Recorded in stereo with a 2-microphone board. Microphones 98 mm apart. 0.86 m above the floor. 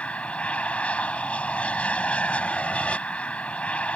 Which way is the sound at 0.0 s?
15° left (ahead or behind).